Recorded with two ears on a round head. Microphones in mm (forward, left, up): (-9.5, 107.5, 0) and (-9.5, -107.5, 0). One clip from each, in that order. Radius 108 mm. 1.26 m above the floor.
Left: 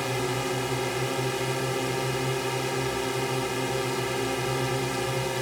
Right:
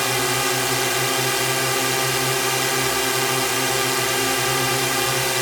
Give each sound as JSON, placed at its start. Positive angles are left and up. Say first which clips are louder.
{"t": 0.0, "sound": "a drone", "louder": "right 8 dB", "side_deg": -50}